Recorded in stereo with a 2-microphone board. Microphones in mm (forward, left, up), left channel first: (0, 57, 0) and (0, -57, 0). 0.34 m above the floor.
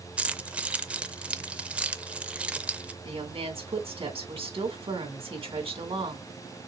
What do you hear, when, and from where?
0.2 s keys jangling: 10° right (ahead or behind), 0.5 m
3.0 s a woman speaking: 55° right (ahead or behind), 2.5 m